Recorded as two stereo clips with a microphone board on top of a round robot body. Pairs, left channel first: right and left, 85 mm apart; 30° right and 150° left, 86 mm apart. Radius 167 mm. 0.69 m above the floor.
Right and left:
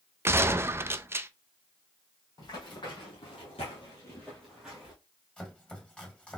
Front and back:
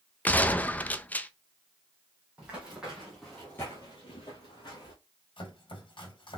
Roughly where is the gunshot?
Ahead left.